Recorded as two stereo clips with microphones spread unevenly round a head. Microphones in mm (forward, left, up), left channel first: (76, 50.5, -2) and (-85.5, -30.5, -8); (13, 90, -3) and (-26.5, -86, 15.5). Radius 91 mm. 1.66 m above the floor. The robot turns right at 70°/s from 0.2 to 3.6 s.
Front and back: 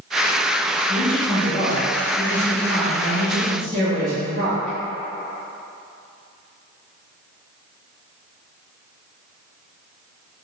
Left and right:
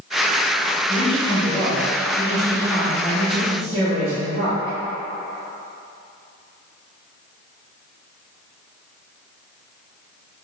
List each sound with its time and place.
0.8 s a man speaking: 50° left, 1.2 m; by 4.8 s 115° right, 1.2 m